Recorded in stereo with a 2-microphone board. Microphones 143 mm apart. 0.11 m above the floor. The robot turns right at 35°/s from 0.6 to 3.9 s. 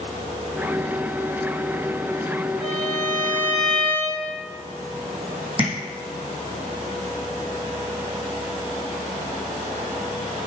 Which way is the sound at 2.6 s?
130° right.